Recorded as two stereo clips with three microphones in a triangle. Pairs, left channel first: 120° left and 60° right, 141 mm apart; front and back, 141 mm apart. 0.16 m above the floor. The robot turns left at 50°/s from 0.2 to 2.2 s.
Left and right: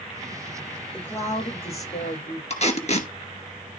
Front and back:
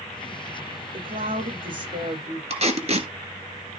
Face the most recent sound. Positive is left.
turn(degrees=150)